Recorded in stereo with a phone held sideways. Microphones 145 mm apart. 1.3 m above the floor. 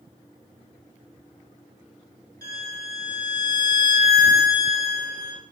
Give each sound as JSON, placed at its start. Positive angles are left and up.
{"t": 2.4, "sound": "a violin", "side_deg": -80, "distance_m": 2.5}